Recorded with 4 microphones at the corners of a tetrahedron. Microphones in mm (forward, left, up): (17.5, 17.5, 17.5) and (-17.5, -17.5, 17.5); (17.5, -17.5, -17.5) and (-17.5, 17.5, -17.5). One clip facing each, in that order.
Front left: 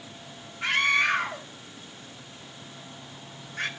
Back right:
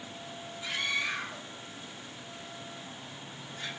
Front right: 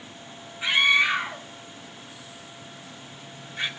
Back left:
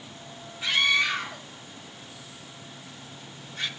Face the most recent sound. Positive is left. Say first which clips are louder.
# front left 10 dB, front right 3 dB
turn(degrees=25)